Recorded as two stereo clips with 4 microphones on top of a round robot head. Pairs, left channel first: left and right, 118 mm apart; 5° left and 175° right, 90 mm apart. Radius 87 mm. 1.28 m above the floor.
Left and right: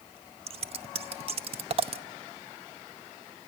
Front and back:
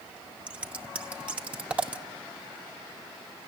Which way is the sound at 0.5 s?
105° right.